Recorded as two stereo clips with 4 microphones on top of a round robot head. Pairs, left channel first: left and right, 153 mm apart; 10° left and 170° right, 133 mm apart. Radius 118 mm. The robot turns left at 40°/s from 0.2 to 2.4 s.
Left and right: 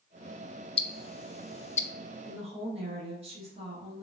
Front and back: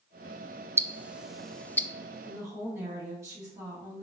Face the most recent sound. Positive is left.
turn(degrees=-110)